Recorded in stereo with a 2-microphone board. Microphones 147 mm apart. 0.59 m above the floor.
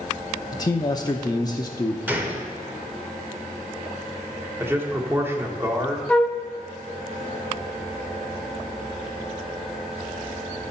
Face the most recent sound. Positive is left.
turn(degrees=10)  # may be behind; listen again after turning